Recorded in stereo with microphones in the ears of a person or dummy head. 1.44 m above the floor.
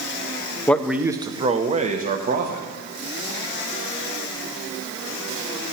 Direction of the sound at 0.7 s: 10° left (ahead or behind).